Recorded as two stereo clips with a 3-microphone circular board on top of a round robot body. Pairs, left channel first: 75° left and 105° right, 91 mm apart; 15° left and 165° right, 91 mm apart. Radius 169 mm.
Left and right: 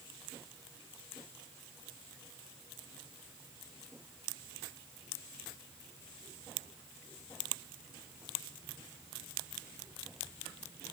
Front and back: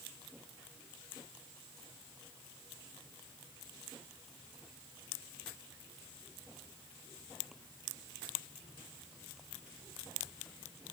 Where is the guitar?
No guitar in this recording.